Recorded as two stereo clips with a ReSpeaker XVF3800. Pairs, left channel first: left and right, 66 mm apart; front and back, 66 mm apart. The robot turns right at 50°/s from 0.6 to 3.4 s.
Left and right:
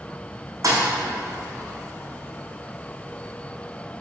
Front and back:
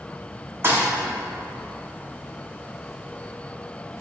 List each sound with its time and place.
0.6 s a thud: 125° right, 0.9 m; by 0.9 s 115° right, 0.9 m